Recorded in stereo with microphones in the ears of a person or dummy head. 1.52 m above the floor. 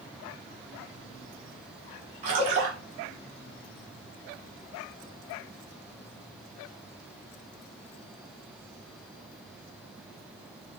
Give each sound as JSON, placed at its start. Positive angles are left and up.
{"t": 2.2, "sound": "a splash", "side_deg": -30, "distance_m": 0.8}